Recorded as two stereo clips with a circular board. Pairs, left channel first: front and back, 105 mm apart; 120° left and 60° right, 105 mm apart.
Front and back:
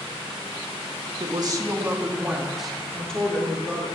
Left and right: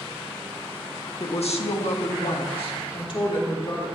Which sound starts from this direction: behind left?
A woman speaking, at 1.2 s.